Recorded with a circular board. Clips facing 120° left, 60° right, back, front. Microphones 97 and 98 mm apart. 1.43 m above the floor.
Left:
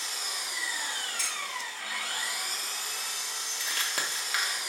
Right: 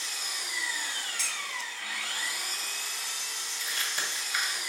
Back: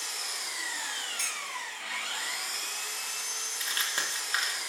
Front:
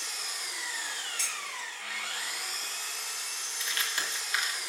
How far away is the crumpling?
About 1.5 m.